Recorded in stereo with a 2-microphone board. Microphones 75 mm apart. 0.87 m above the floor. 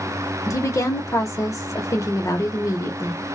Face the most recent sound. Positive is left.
turn(degrees=45)  # may be behind; listen again after turning